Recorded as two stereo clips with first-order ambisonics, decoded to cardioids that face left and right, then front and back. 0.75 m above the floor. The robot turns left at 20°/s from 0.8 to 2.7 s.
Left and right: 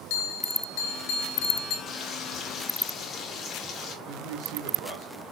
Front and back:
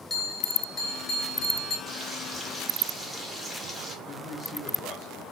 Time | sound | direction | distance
0.1 | a bell | 80° left | 0.9 m
1.9 | frying | 100° left | 0.9 m
4.0 | a man speaking | 80° right | 1.6 m